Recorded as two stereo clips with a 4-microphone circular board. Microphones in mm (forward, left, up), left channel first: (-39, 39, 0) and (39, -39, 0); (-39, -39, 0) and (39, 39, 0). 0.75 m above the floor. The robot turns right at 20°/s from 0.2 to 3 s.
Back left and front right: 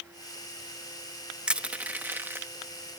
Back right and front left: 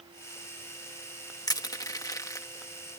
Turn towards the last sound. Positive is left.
turn(degrees=-90)